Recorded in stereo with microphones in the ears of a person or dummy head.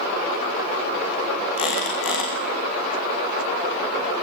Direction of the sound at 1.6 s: 80° left.